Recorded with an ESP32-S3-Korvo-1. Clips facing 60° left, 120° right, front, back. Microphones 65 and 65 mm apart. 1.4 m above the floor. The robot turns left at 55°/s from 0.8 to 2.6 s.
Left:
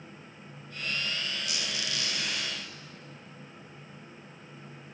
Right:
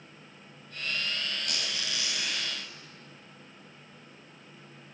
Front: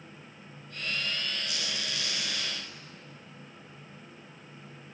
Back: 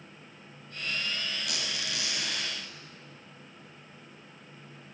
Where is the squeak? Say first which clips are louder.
Even, even; 160° right, 7.5 m; by 2.5 s 140° left, 7.5 m.